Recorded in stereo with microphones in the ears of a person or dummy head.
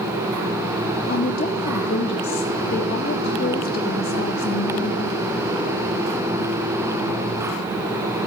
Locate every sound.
1.1 s a woman speaking: 40° left (ahead or behind), 0.7 m